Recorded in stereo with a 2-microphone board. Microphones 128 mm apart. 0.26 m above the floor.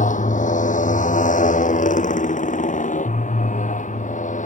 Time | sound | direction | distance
0.0 | a motorcycle | 85° left | ?